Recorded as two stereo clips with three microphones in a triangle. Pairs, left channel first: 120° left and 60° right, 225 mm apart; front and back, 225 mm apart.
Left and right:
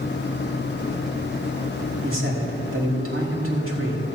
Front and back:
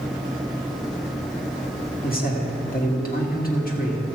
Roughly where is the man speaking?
Ahead right.